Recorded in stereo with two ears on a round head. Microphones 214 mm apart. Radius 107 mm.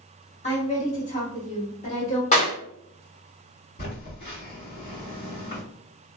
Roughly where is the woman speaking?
Left.